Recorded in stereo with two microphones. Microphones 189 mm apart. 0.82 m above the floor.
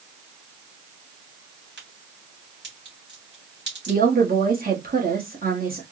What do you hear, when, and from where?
1.8 s a crack: 65° right (ahead or behind), 2.5 m
3.9 s a woman speaking: 50° right (ahead or behind), 1.3 m